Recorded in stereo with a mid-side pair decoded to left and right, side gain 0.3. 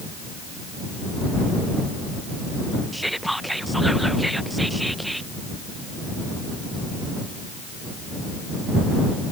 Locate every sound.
2.9 s whispering: 5° right